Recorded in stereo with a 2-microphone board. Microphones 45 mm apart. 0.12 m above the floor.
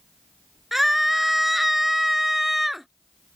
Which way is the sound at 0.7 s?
5° right (ahead or behind).